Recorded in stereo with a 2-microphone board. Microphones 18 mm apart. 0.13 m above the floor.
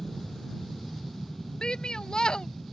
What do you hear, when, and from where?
0.0 s an aircraft: 15° left (ahead or behind)
1.6 s a shout: 45° left (ahead or behind)